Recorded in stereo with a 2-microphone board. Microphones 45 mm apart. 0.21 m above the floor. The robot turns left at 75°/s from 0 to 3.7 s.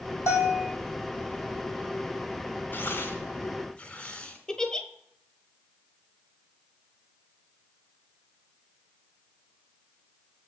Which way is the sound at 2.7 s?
45° left (ahead or behind).